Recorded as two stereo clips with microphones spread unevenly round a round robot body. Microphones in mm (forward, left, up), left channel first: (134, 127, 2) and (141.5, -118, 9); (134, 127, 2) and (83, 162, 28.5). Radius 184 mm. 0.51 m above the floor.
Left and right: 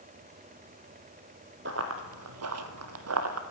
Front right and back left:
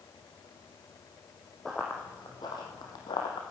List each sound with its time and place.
1.6 s running footsteps: 140° right, 1.0 m; by 3.4 s 70° right, 1.4 m